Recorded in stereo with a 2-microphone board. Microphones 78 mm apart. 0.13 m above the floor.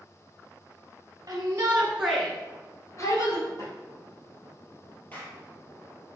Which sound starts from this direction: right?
A shout, at 1.3 s.